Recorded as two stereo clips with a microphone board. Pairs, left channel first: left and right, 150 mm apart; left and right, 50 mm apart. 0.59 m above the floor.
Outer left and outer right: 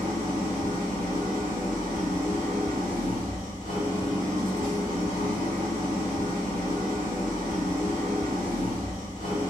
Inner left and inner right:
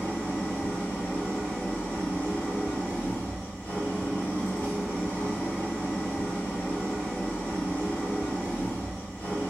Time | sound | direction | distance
0.0 | an engine running | 55° left (ahead or behind) | 1.4 m